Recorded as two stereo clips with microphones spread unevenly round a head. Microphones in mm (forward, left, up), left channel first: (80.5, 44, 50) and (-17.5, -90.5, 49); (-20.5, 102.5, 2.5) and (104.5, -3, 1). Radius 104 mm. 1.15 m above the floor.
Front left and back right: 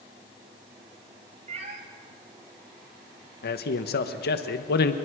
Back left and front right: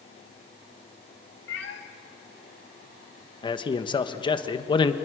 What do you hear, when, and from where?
1.5 s a cat meowing: 175° left, 1.8 m
3.4 s a man speaking: 80° left, 1.4 m